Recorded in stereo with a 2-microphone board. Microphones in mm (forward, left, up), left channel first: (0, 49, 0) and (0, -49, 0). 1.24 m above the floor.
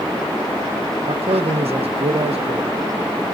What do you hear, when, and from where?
1.1 s a man speaking: 85° right, 0.5 m